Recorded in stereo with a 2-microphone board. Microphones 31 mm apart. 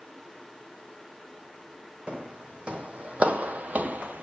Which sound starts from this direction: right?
Footsteps, at 2.1 s.